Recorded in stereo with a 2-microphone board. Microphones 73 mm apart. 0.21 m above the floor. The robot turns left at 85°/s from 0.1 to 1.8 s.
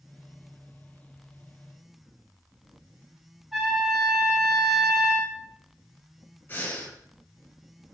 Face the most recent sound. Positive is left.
turn(degrees=30)  # may be behind; listen again after turning